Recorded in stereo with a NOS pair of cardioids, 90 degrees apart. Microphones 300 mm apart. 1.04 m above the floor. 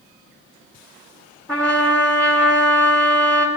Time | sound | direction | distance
1.5 | a trumpet | 5° left | 2 m